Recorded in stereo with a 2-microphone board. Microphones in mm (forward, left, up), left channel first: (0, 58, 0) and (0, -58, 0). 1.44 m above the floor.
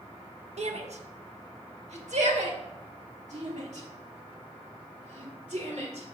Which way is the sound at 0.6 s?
65° right (ahead or behind).